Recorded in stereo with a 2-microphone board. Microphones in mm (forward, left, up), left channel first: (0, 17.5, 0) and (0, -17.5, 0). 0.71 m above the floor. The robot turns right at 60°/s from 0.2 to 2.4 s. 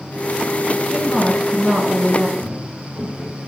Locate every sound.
0.9 s a woman speaking: 160° left, 7.5 m; by 2.3 s 115° right, 7.5 m
2.4 s footsteps: 40° right (ahead or behind), 6.5 m; by 3.4 s 45° right (ahead or behind), 8 m